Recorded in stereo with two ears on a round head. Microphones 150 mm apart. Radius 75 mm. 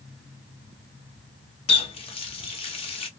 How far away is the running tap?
About 0.9 m.